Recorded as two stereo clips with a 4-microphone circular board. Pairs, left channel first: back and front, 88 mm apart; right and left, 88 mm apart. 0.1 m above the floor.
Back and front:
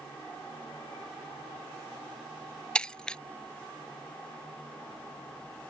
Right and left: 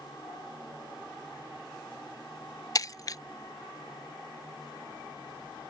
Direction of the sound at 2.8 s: 105° right.